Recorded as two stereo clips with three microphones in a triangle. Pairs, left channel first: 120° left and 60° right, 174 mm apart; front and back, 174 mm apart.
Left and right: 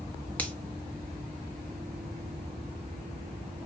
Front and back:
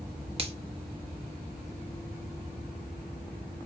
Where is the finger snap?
165° right, 0.9 m.